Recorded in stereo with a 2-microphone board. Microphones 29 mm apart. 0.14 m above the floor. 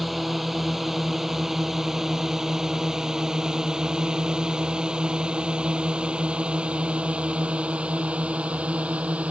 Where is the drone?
5° right (ahead or behind); by 9.3 s 55° right (ahead or behind).